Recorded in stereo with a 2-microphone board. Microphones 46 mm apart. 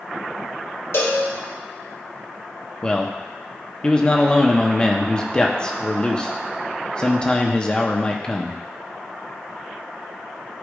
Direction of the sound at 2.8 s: 20° left (ahead or behind).